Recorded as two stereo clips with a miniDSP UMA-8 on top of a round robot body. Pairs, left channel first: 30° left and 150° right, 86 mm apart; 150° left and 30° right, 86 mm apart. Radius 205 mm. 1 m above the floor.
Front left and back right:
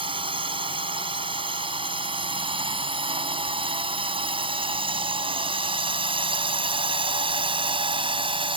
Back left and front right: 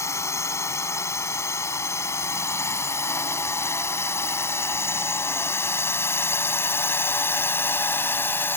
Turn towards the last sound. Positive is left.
turn(degrees=-145)